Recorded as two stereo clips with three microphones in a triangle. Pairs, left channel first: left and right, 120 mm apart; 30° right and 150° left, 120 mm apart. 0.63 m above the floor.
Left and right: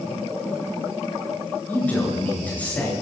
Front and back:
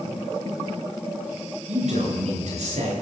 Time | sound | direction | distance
1.7 | a man speaking | 165° left | 10 m